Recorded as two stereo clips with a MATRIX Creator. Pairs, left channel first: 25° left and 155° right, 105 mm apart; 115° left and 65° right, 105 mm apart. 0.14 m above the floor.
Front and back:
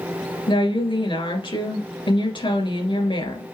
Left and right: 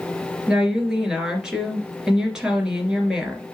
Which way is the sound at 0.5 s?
15° left.